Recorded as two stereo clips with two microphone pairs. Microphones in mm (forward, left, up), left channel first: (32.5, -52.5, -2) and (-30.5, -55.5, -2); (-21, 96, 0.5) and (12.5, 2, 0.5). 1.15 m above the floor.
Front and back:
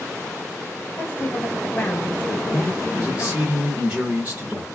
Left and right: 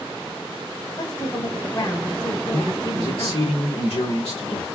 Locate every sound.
1.0 s a woman speaking: 65° left, 1.2 m
2.5 s a man speaking: 125° left, 1.1 m